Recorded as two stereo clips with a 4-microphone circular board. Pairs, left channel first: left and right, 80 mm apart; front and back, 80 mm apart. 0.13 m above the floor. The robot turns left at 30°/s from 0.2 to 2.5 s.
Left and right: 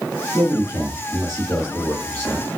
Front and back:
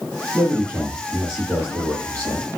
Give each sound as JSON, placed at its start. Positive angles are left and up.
{"t": 0.3, "sound": "a man speaking", "azimuth_deg": 95, "distance_m": 1.9}